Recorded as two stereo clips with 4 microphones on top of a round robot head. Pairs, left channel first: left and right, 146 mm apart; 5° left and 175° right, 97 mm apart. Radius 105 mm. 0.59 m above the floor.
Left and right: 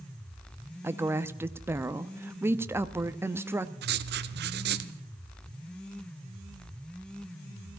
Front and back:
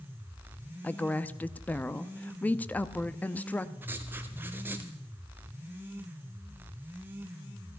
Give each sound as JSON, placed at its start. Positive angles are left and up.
{"t": 0.8, "sound": "a woman speaking", "azimuth_deg": -45, "distance_m": 0.7}
{"t": 3.8, "sound": "writing", "azimuth_deg": -100, "distance_m": 0.7}